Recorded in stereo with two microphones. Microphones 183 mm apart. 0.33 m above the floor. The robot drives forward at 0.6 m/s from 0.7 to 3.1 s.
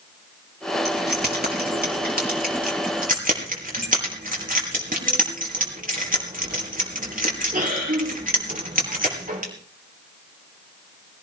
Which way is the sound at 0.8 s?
60° right (ahead or behind).